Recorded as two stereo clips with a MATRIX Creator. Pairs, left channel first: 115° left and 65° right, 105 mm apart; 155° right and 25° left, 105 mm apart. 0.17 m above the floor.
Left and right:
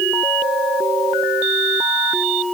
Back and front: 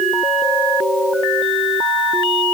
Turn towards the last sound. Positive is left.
No sound to turn to.